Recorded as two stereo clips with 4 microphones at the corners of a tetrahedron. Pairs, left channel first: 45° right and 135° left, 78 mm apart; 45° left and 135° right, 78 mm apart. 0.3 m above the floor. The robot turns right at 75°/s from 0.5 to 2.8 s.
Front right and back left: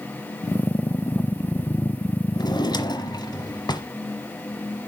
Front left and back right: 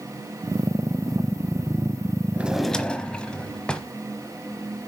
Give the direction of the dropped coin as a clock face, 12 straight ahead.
No dropped coin in this recording.